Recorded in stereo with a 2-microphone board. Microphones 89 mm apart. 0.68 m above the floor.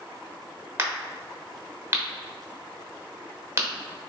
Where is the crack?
30° right (ahead or behind), 1.0 m.